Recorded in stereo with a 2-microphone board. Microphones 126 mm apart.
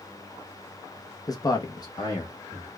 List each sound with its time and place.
1.3 s a man speaking: 30° left (ahead or behind), 0.6 m; by 2.7 s 25° left (ahead or behind), 1.5 m